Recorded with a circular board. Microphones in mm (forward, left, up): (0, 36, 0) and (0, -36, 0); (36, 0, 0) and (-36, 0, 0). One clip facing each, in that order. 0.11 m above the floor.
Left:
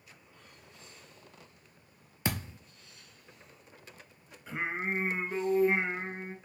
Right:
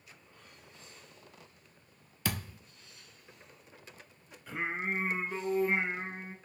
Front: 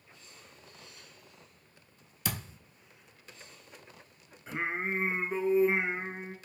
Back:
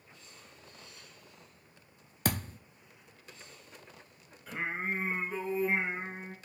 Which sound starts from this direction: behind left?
A thud, at 2.2 s.